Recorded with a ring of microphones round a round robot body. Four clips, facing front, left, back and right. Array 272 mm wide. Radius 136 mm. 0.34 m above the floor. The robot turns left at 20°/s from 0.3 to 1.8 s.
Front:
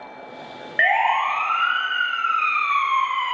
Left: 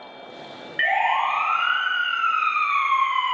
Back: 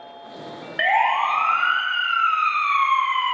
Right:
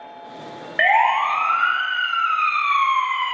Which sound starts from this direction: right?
A siren, at 0.8 s.